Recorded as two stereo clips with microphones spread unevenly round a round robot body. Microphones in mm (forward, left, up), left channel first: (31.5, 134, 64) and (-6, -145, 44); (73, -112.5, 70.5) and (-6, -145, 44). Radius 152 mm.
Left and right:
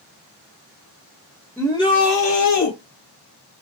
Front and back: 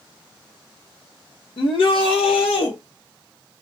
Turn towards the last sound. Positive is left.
turn(degrees=65)